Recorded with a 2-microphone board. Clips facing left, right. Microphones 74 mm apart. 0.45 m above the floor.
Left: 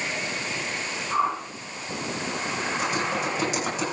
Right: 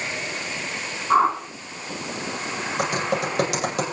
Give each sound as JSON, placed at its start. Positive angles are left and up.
{"t": 1.1, "sound": "a whoosh", "side_deg": -75, "distance_m": 4.0}
{"t": 2.8, "sound": "typing on a keyboard", "side_deg": -90, "distance_m": 8.5}